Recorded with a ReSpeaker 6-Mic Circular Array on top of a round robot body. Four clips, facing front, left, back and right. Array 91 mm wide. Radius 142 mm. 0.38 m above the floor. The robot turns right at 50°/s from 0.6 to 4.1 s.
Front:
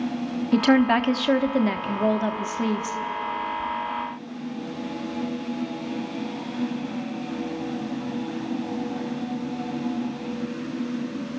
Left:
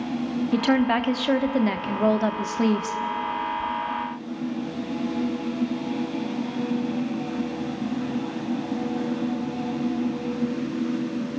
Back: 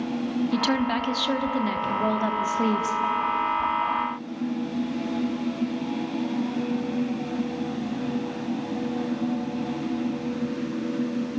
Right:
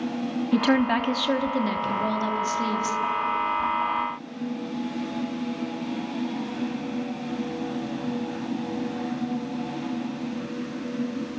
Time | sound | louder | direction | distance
0.5 | a woman speaking | even, front 9 dB | straight ahead | 1.1 m